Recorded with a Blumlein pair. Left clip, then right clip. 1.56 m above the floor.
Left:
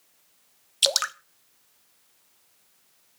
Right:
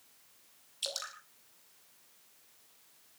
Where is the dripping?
35° left, 0.8 m.